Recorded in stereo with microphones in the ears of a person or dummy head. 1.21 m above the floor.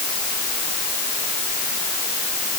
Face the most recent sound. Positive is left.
No sound to turn to.